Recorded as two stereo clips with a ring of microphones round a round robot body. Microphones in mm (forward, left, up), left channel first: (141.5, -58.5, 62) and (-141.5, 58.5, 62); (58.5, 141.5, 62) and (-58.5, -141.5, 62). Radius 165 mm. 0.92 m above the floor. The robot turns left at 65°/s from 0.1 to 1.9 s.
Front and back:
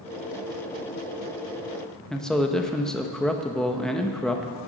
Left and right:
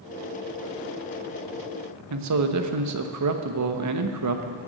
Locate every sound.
2.1 s a man speaking: 110° right, 1.3 m